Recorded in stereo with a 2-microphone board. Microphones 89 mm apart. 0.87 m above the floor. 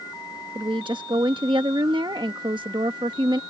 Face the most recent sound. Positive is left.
turn(degrees=-60)  # may be behind; listen again after turning